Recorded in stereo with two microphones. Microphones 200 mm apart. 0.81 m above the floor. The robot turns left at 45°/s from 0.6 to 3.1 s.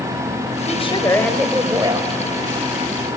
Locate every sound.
0.7 s a woman speaking: 35° left, 4.5 m; by 2.1 s 30° right, 4.5 m